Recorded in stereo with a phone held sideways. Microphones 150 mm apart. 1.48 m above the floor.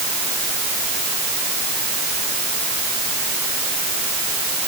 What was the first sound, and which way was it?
Only background noise.